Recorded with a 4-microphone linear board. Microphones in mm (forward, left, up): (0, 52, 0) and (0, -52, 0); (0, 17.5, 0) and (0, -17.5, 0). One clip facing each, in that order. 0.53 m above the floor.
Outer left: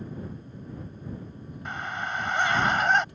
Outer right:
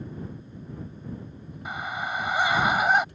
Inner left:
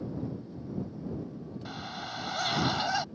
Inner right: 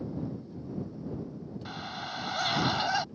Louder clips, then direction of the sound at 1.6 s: Outer right 1 dB, inner right 1 dB; 5° right (ahead or behind).